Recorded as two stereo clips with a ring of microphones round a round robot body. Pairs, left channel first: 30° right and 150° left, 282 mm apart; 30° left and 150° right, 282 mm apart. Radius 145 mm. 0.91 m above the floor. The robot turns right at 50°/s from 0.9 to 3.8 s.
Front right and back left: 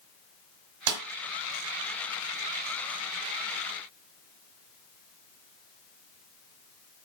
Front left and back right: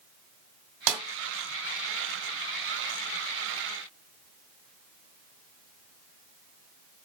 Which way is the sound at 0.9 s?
170° right.